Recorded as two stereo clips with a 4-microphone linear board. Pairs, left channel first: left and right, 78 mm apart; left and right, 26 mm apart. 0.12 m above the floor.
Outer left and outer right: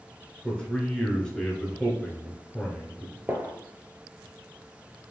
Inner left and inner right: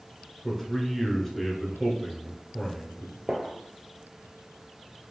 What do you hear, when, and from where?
0.4 s a man speaking: 10° left (ahead or behind), 1.7 m
3.3 s a gunshot: 25° right (ahead or behind), 1.1 m